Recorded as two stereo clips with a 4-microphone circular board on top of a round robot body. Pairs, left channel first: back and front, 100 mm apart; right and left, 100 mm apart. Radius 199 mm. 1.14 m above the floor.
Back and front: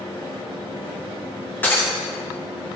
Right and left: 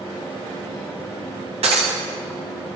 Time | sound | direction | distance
1.6 | breaking glass | 105° left | 0.6 m